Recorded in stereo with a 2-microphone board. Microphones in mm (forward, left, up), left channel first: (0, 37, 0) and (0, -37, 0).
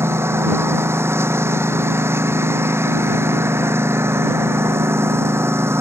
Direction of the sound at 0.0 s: 35° right (ahead or behind).